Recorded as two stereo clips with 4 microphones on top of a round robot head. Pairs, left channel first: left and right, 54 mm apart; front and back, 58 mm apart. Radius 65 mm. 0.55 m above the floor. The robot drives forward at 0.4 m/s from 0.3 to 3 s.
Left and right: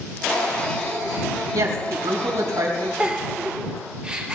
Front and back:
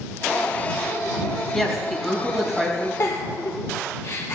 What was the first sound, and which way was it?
A woman speaking, 85° right.